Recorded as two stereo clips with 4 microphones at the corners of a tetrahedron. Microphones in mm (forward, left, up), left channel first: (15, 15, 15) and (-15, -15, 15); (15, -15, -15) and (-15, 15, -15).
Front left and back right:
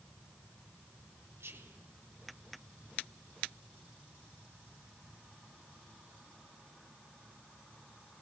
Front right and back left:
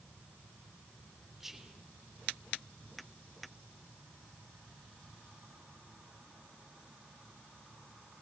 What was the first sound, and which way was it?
Whispering, 145° right.